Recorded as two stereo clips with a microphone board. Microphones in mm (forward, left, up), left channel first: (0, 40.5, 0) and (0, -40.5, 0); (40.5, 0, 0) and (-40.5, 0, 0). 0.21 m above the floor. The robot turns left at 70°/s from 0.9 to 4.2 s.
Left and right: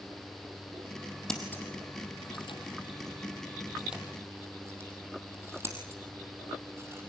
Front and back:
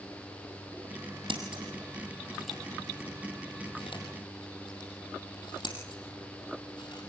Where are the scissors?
175° left, 4 m; by 7.1 s 30° right, 4 m.